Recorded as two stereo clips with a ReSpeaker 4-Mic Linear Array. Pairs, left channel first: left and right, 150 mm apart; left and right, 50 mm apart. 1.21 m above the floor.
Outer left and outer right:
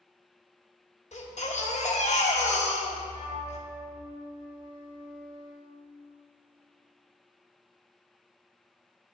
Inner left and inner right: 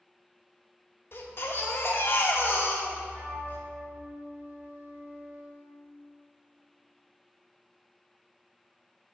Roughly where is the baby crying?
Left.